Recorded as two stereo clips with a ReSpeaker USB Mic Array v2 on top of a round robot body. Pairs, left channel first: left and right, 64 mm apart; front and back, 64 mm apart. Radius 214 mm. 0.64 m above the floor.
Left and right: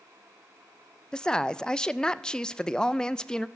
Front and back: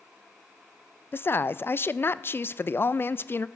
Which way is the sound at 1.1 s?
20° left.